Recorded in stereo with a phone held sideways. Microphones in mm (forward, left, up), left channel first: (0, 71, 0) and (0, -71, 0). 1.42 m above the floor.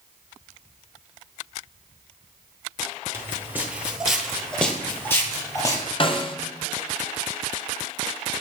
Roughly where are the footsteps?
Centre.